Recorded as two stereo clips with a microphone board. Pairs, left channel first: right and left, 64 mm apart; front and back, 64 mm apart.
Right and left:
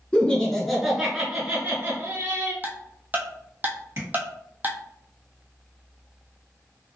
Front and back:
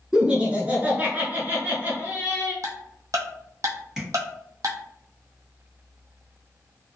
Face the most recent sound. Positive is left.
turn(degrees=100)